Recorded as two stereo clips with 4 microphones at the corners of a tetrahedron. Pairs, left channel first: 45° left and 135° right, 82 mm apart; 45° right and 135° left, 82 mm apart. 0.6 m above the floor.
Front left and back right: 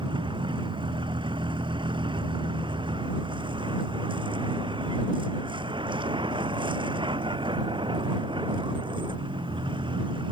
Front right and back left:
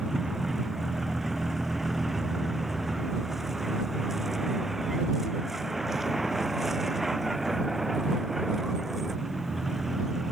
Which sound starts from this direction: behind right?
A vehicle, at 0.0 s.